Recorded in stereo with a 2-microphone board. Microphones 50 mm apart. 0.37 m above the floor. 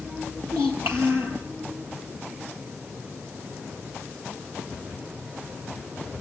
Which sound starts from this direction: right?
A child speaking, at 0.5 s.